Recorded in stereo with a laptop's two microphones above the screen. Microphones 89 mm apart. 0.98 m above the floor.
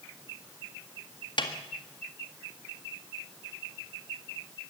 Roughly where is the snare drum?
Left.